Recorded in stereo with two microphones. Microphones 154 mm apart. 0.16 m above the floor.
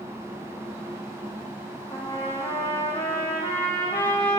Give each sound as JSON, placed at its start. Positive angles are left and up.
{"t": 1.9, "sound": "a trumpet", "side_deg": 35, "distance_m": 3.0}